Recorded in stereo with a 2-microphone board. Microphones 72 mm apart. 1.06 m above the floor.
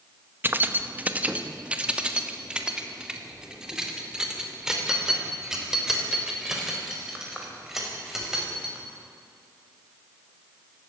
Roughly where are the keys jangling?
Right.